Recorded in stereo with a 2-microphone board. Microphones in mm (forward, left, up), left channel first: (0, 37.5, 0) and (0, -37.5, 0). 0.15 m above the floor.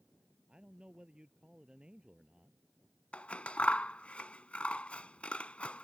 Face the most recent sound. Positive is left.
turn(degrees=15)  # may be behind; listen again after turning